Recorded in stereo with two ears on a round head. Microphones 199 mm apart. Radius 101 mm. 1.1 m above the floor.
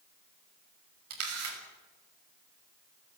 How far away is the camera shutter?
About 6.5 m.